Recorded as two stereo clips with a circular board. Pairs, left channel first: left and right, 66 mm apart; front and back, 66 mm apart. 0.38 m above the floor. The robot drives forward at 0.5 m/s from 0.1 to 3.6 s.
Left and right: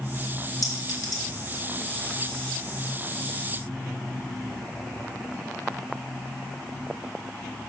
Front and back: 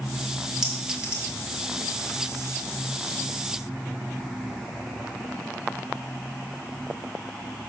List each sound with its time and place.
0.6 s a clink: 95° left, 1.9 m; by 1.2 s 105° left, 1.9 m